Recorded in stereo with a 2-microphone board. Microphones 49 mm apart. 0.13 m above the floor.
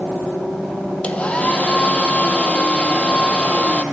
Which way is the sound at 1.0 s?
25° left (ahead or behind).